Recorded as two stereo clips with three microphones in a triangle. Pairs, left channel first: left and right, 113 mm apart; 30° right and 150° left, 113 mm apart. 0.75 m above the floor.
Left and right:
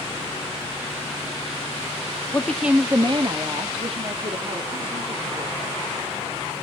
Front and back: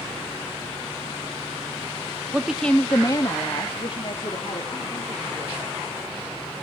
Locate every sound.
2.3 s a woman speaking: 105° left, 0.7 m; by 5.9 s 75° right, 3.5 m